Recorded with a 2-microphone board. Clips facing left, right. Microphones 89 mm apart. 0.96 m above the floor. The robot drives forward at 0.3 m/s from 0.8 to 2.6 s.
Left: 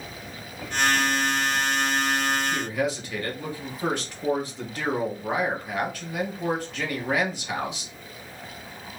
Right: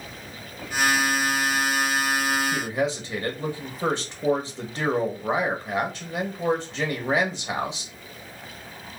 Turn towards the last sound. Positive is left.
turn(degrees=-25)  # may be behind; listen again after turning